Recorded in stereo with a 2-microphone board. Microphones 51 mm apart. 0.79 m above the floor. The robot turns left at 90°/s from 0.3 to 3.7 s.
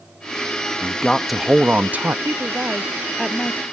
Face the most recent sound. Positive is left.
turn(degrees=125)